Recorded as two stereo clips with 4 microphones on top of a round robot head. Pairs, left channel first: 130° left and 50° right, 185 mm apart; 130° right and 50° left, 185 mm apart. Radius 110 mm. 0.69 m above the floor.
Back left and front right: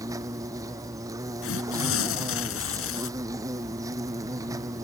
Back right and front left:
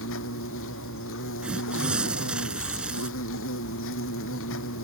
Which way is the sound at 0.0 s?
120° right.